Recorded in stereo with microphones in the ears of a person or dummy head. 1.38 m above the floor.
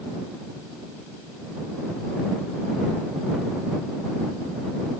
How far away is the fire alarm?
No fire alarm in this recording.